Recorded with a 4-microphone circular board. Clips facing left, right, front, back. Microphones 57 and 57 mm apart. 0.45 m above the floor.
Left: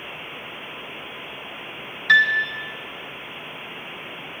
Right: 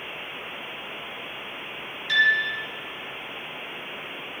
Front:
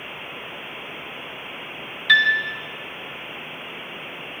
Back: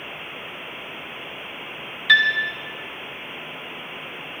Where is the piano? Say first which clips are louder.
Left 4 dB, even; 95° left, 1.6 m.